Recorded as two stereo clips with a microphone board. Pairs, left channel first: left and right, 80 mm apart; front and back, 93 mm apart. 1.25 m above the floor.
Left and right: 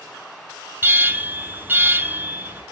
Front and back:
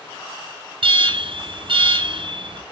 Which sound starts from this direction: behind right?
An alarm, at 0.8 s.